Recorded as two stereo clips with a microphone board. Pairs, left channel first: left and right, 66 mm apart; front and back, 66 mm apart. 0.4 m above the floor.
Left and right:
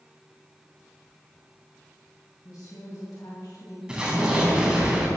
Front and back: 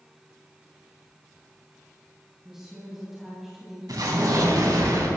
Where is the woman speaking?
95° left, 3 m.